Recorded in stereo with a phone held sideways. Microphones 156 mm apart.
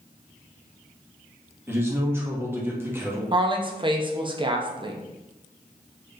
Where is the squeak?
No squeak in this recording.